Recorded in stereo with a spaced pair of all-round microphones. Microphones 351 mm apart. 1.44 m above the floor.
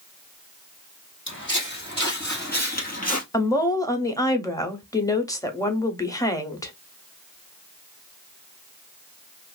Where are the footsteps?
35° left (ahead or behind), 2.5 m; by 3.2 s 25° left (ahead or behind), 1.7 m.